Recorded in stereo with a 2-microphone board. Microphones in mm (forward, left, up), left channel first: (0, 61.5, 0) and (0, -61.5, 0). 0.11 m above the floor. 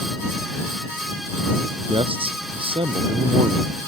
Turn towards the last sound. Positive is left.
turn(degrees=-50)  # may be behind; listen again after turning